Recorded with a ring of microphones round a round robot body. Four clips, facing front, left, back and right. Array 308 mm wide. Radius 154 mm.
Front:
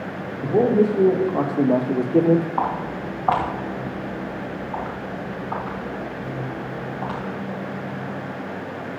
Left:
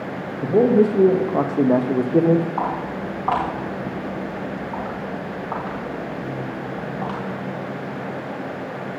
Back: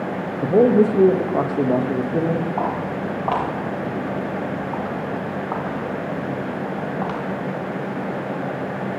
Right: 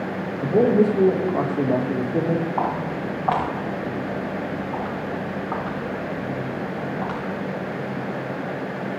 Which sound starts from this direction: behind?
A man speaking, at 0.4 s.